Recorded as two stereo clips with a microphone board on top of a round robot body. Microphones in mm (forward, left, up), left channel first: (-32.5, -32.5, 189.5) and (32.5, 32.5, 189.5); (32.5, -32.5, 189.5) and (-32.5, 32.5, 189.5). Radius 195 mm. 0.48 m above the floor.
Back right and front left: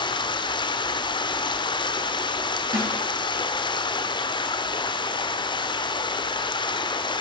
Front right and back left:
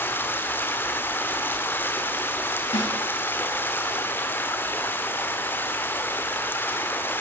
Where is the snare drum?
15° right, 9.5 m.